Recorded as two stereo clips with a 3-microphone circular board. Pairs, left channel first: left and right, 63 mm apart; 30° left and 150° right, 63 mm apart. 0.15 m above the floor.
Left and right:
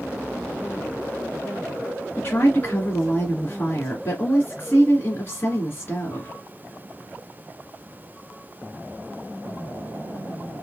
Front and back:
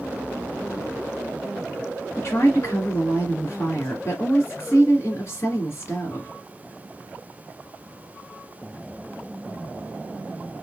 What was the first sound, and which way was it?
A woman speaking, 45° left.